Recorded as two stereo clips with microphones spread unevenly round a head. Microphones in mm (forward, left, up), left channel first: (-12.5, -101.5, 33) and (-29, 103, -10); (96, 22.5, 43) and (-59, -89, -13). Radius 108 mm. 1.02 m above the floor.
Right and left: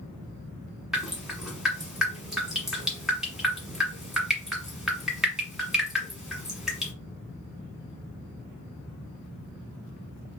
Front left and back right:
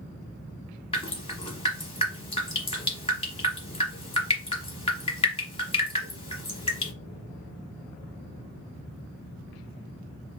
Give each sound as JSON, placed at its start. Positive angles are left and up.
{"t": 0.9, "sound": "dripping", "azimuth_deg": 0, "distance_m": 1.3}